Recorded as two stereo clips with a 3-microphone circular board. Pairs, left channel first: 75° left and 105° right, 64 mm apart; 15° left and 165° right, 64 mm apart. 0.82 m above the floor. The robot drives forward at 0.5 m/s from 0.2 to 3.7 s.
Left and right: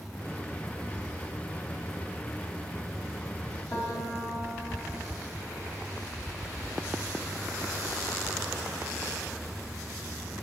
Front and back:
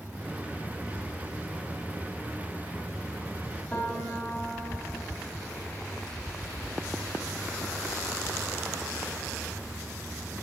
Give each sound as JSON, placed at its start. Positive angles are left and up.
{"t": 3.7, "sound": "a piano", "azimuth_deg": 80, "distance_m": 3.5}